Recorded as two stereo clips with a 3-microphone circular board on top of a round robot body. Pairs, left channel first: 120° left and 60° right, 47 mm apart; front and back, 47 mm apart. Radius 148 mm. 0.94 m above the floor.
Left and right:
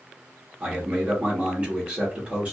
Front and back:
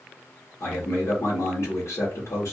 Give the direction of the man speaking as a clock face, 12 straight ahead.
12 o'clock.